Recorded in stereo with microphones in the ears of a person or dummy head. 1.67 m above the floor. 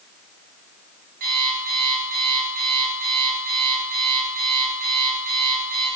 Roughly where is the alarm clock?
Right.